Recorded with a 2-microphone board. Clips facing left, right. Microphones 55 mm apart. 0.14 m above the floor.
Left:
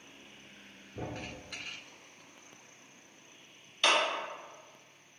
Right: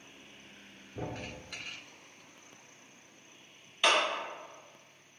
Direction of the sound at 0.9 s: 5° right (ahead or behind).